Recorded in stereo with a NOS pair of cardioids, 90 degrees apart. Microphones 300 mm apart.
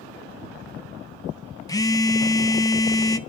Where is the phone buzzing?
10° left, 0.8 m.